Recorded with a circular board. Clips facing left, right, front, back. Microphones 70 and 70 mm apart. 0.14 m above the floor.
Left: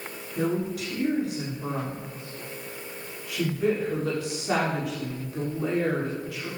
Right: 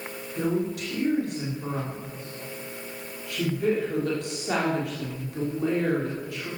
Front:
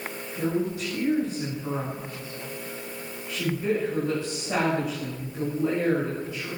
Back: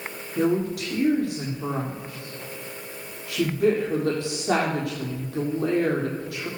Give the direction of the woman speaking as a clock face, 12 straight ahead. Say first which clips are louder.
Even, back 4 dB; 6 o'clock.